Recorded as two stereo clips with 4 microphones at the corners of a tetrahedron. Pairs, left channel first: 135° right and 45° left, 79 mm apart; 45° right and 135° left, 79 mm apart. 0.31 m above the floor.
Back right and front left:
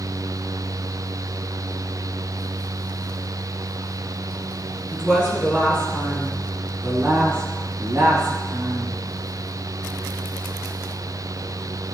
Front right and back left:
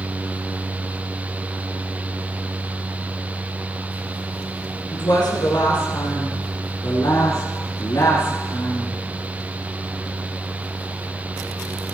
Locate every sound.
4.9 s a woman speaking: 30° right, 3.5 m; by 9.0 s 10° left, 2.5 m